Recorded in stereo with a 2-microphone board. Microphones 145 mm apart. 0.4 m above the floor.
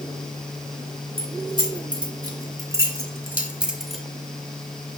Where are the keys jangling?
40° right (ahead or behind), 2 m; by 4.0 s centre (ahead or behind), 1.2 m.